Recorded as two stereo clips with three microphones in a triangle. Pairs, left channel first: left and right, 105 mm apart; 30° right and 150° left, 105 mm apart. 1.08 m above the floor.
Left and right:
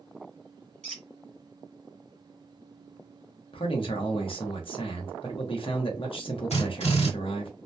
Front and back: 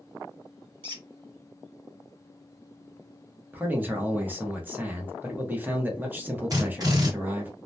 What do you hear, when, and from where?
0.8 s a squeak: 170° left, 1.5 m
3.5 s a man speaking: 80° left, 0.7 m
6.5 s a drill: 95° left, 1.4 m